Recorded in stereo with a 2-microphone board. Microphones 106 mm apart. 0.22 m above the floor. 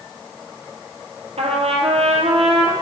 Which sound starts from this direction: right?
A trumpet, at 1.4 s.